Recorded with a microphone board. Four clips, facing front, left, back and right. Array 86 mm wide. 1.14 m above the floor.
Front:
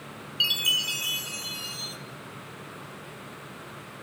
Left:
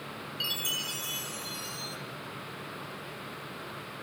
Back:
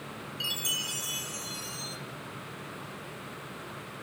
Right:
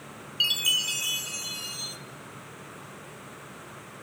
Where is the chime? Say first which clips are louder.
Right 9 dB, front 9 dB; 45° right, 0.6 m.